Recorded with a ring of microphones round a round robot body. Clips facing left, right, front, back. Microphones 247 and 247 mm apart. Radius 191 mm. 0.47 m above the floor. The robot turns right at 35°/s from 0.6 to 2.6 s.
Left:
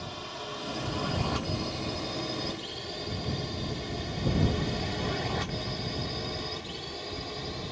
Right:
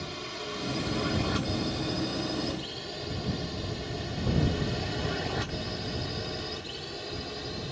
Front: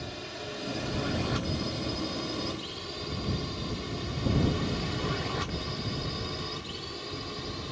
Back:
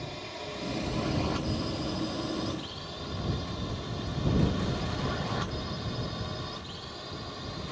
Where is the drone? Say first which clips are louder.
Right 3 dB, front 1 dB; 70° right; by 7.7 s 15° right.